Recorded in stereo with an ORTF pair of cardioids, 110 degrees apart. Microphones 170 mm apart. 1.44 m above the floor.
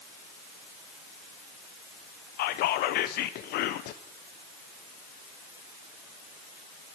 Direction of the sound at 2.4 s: 70° left.